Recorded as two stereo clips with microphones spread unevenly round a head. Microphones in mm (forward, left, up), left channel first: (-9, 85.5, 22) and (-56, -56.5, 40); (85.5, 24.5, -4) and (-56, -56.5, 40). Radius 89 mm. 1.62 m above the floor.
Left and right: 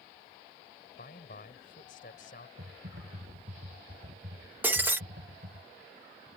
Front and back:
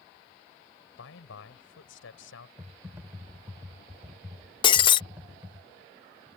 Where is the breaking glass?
40° right.